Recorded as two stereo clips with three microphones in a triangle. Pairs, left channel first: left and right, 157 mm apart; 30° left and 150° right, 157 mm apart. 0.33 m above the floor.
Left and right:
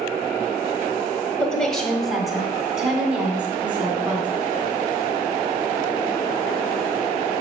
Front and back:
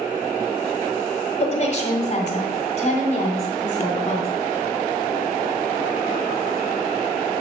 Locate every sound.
1.4 s a woman speaking: 10° left, 1.7 m; by 4.3 s 10° right, 3 m